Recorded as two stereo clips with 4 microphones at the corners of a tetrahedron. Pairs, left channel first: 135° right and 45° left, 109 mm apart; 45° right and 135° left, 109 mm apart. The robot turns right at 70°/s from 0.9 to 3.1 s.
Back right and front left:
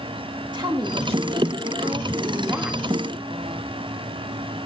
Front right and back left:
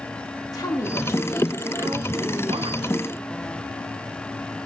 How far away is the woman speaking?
About 1.8 m.